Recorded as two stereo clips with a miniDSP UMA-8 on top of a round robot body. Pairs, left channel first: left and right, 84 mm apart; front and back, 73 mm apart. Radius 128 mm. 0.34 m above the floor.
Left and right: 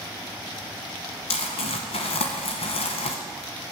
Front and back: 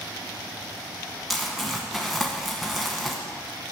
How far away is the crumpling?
About 0.8 m.